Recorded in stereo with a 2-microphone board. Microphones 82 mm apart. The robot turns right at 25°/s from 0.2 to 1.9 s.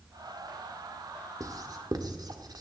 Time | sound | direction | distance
1.4 | writing | 45° right (ahead or behind) | 1.3 m